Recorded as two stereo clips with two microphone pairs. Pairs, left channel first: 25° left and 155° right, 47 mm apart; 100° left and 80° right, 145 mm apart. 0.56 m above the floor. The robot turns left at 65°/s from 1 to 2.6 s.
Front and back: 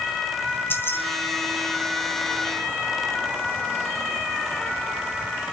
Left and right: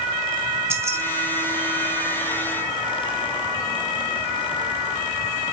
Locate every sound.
0.7 s keys jangling: 10° right, 1.8 m